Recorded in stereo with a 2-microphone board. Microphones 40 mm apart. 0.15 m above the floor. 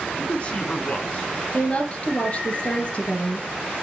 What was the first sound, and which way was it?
A man speaking, 35° left (ahead or behind).